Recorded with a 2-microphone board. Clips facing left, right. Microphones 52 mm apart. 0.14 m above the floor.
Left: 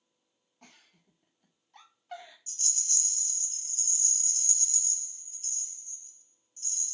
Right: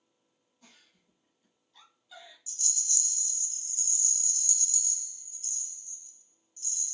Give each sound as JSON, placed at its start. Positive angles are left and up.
{"t": 0.6, "sound": "a giggle", "side_deg": 60, "distance_m": 0.6}
{"t": 2.5, "sound": "a rattle", "side_deg": 40, "distance_m": 0.8}